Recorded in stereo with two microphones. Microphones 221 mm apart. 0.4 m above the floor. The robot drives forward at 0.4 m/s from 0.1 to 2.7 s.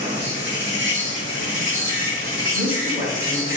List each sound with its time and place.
0.0 s an insect: 50° right (ahead or behind), 1.5 m; by 3.6 s 75° right (ahead or behind), 1.2 m
2.5 s a woman speaking: 25° right (ahead or behind), 1.1 m